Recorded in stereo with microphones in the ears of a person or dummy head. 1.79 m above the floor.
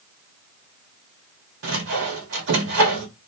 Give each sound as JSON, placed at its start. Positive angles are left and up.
{"t": 1.6, "sound": "sawing", "side_deg": -65, "distance_m": 1.4}